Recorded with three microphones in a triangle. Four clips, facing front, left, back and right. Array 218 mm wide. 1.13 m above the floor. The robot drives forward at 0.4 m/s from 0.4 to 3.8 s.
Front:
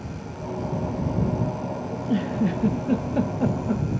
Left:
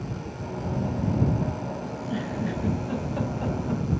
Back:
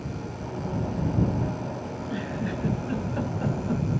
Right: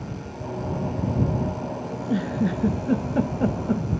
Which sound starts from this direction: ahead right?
A giggle, at 1.9 s.